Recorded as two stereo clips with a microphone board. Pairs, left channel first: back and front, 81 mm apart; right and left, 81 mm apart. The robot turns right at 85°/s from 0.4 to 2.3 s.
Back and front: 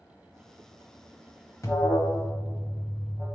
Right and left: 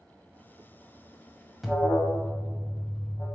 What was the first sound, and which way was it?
An alarm, 175° left.